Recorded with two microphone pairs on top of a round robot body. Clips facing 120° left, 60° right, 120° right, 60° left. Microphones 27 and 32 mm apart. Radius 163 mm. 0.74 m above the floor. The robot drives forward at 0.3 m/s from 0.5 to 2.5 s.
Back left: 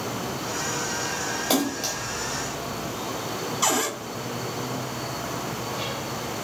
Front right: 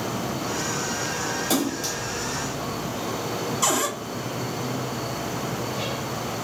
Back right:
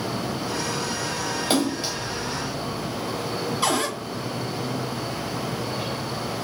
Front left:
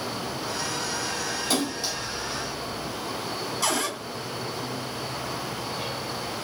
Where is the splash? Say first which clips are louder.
Back left 2 dB, back right 5 dB; straight behind, 1.3 m.